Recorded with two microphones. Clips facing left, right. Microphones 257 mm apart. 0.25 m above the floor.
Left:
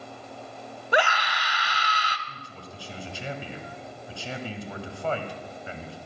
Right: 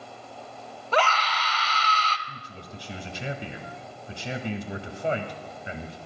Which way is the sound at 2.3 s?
20° right (ahead or behind).